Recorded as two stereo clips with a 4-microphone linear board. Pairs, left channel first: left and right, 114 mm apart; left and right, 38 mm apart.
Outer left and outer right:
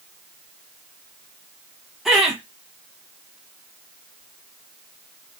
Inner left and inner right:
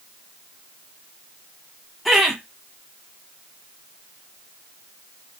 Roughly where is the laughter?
Centre.